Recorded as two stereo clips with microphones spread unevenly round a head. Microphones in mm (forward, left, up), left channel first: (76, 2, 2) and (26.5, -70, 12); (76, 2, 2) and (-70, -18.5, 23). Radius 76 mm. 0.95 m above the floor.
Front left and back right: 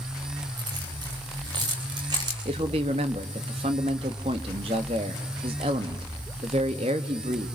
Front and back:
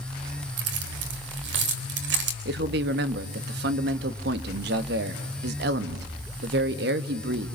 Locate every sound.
0.6 s keys jangling: 170° left, 3 m
2.5 s a man speaking: 165° right, 1.6 m